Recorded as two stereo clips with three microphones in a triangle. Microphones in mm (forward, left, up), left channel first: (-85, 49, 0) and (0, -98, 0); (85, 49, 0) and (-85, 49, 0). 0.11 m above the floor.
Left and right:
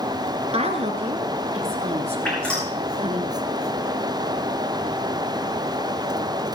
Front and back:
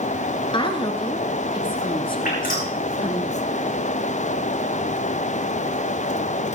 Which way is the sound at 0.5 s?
40° right.